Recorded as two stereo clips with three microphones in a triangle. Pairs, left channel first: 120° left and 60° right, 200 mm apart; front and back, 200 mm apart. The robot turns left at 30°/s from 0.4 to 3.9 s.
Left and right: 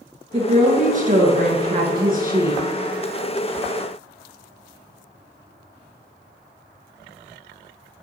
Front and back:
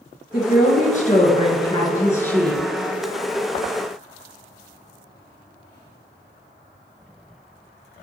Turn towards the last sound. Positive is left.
turn(degrees=-120)